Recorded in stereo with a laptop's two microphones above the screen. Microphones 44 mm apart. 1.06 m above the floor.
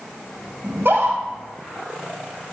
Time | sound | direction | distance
0.6 | a scream | 55° right (ahead or behind) | 7 m